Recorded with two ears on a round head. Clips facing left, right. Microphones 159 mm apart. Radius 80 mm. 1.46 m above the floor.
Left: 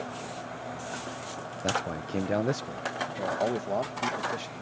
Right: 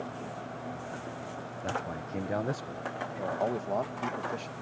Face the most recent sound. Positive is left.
turn(degrees=5)  # may be behind; listen again after turning